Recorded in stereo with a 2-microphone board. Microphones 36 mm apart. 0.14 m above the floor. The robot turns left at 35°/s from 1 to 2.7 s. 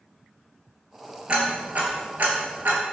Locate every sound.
1.3 s ticking: 30° right (ahead or behind), 0.7 m; by 2.8 s 65° right (ahead or behind), 0.7 m